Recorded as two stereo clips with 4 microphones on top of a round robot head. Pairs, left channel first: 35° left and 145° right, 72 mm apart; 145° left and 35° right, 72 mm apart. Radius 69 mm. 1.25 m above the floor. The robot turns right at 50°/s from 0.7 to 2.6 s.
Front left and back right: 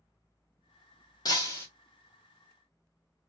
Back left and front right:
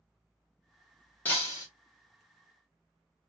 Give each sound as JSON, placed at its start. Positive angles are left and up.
{"t": 1.2, "sound": "breaking glass", "azimuth_deg": 75, "distance_m": 1.0}